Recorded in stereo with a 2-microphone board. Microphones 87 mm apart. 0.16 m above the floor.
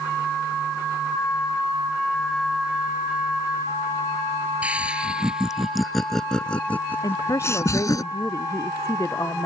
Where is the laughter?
15° right (ahead or behind); by 8.0 s 45° left (ahead or behind).